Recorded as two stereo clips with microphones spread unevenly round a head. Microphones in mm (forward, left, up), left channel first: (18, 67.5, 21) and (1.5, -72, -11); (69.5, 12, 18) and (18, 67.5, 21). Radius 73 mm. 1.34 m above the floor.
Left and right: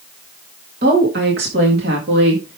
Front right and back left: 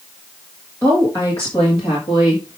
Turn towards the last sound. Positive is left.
turn(degrees=-90)